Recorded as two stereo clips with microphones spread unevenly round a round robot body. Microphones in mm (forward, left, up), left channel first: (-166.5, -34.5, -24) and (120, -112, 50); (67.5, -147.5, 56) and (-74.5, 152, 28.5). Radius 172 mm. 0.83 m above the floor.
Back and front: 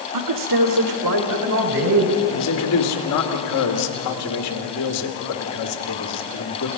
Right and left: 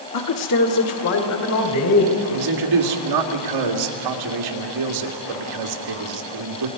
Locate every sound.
0.1 s a man speaking: 35° right, 1.9 m; by 2.2 s 30° right, 4 m
2.3 s a man speaking: 125° left, 2.0 m